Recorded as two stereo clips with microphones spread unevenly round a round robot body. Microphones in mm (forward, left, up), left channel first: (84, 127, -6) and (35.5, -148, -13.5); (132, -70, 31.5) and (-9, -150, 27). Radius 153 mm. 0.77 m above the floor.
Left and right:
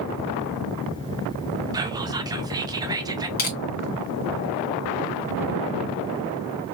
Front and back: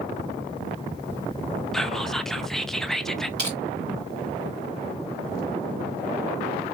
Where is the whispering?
60° right, 0.6 m.